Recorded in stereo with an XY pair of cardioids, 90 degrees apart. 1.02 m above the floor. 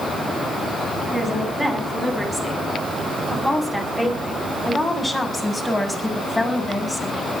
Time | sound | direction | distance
1.1 | a woman speaking | 20° right | 9 m